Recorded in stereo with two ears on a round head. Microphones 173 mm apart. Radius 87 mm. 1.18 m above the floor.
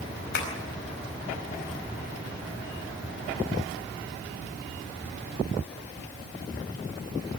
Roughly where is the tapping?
Left.